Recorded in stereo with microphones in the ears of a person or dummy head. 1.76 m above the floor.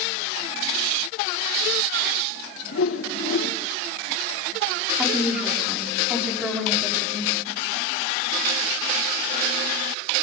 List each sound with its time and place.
2.7 s a whoosh: 75° left (ahead or behind), 3 m
5.0 s a woman speaking: 5° right (ahead or behind), 5.5 m